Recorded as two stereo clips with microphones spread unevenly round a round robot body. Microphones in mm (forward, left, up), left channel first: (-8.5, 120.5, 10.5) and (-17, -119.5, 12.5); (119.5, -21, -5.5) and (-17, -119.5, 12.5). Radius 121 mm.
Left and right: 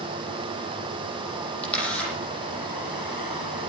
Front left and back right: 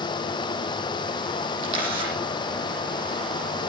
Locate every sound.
1.6 s a camera shutter: 175° left, 9.5 m